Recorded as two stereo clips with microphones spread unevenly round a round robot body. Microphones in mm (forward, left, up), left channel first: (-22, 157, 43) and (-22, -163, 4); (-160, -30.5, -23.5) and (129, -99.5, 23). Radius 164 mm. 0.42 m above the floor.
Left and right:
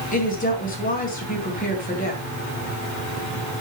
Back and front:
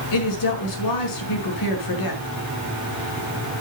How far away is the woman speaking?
About 5 m.